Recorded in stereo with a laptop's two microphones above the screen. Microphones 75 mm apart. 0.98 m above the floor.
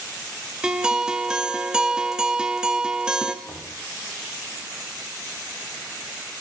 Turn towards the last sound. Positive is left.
turn(degrees=45)  # may be behind; listen again after turning